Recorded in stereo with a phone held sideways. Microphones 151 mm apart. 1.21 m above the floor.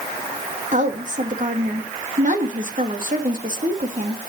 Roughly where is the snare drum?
I don't hear a snare drum.